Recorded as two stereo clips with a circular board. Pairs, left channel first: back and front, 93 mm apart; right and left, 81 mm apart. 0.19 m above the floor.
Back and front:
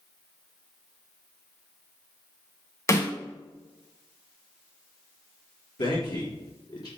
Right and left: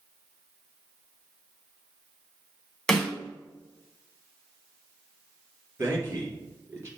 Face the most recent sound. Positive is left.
turn(degrees=145)